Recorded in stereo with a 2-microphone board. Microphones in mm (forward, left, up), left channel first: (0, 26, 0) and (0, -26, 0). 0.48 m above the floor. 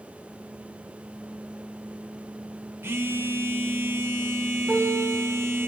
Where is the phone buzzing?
55° right (ahead or behind), 1.8 m.